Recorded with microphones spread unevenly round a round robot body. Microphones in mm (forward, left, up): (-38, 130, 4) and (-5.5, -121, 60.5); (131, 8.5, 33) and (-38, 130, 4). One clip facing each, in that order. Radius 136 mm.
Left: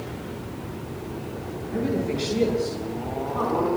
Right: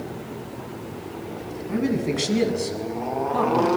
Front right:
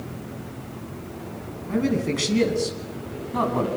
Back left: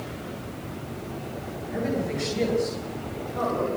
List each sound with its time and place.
1.7 s a man speaking: 55° right, 7 m; by 3.7 s 50° right, 5.5 m